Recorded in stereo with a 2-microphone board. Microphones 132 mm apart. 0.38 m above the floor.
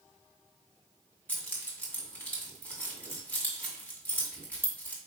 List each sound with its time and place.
1.3 s keys jangling: 10° left (ahead or behind), 1.8 m